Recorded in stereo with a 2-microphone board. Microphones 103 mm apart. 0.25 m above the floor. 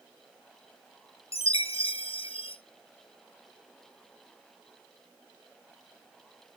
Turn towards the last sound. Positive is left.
turn(degrees=85)